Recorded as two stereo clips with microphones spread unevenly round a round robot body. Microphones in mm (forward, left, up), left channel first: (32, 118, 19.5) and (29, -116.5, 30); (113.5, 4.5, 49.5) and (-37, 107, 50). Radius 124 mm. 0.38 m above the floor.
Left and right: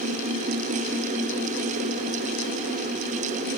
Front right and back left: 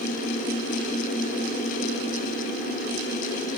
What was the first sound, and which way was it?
Only background noise.